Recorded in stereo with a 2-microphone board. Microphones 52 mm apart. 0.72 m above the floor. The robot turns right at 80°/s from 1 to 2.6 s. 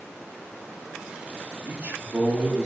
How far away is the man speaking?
About 1.7 m.